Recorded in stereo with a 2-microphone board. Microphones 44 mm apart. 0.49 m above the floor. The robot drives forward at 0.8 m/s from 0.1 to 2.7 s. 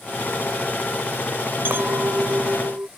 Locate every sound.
1.6 s a clink: 65° right (ahead or behind); by 2.9 s 60° right (ahead or behind)